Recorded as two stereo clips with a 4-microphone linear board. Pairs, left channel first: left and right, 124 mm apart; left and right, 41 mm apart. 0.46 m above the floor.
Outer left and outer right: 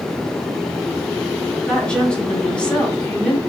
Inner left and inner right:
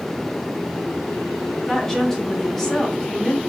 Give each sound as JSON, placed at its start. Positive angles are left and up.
{"t": 1.7, "sound": "a woman speaking", "side_deg": 10, "distance_m": 1.0}